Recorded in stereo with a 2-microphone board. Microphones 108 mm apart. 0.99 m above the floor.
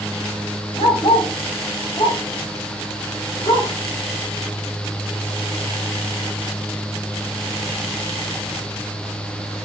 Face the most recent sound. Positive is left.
turn(degrees=65)  # may be behind; listen again after turning